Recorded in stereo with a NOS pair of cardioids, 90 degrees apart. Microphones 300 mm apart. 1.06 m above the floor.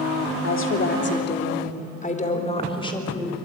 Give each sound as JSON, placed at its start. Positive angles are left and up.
{"t": 0.4, "sound": "a woman speaking", "azimuth_deg": 45, "distance_m": 3.0}